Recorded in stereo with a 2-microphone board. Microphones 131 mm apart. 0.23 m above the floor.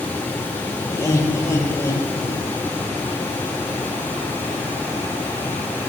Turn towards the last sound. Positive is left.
turn(degrees=15)  # may be behind; listen again after turning